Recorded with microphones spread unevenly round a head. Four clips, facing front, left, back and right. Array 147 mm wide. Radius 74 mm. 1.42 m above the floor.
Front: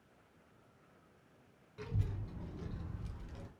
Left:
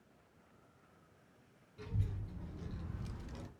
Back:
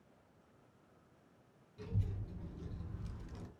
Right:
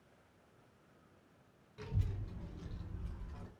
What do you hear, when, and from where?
1.8 s a child speaking: 15° right, 1.3 m; by 3.5 s 105° left, 0.8 m